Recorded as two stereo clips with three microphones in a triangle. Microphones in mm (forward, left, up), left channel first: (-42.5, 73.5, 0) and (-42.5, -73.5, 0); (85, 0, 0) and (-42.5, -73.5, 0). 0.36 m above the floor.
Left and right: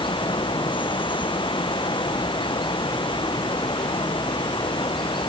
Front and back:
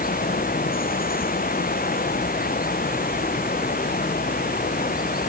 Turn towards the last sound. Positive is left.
turn(degrees=35)